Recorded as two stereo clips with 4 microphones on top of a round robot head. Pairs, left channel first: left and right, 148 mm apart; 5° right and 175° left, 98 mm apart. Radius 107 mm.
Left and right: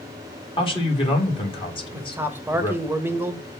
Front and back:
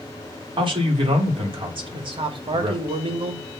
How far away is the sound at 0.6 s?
About 2.5 m.